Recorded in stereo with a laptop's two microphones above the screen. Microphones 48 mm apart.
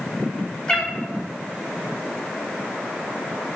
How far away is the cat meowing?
About 1.0 m.